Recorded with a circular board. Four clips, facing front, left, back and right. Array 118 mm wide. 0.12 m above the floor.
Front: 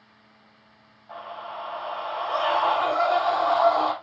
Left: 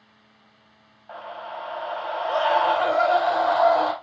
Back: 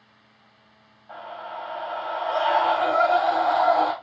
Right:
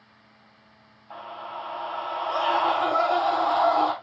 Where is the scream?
95° left, 6.5 m.